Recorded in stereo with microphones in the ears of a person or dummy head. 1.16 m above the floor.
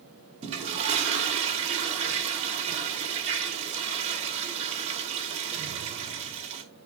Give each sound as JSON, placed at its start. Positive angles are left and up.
{"t": 0.4, "sound": "a toilet flushing", "side_deg": -35, "distance_m": 1.6}